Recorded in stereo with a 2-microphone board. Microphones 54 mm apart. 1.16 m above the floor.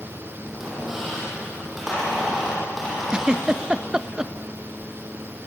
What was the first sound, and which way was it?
A squeak, 5° right (ahead or behind).